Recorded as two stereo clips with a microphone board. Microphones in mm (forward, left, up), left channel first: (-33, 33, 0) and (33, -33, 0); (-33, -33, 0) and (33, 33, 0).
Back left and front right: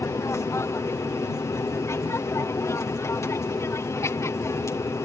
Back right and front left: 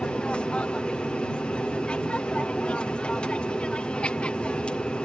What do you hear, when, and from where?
0.0 s an aircraft: 155° left